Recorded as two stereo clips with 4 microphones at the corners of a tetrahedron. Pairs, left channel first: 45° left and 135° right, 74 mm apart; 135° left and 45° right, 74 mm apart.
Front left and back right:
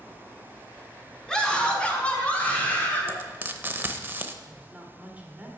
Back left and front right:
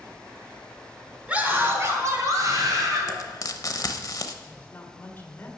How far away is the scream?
About 1.4 m.